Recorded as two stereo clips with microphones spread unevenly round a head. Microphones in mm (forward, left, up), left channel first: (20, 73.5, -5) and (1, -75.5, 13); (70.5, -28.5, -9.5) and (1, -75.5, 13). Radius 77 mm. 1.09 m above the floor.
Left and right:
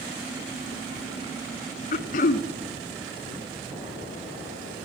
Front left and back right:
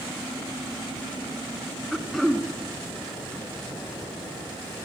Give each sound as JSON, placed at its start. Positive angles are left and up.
{"t": 1.9, "sound": "throat clearing", "azimuth_deg": 125, "distance_m": 0.7}